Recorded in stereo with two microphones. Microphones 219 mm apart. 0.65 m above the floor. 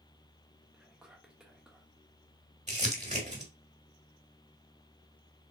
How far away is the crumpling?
About 1.2 m.